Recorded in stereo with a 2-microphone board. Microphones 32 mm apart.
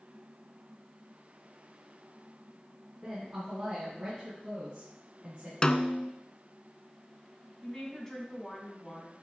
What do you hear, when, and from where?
3.0 s a woman speaking: 30° right (ahead or behind), 3.5 m; by 5.5 s 50° right (ahead or behind), 6 m
5.6 s a snare drum: 30° left (ahead or behind), 0.5 m
7.6 s a woman speaking: 20° left (ahead or behind), 3 m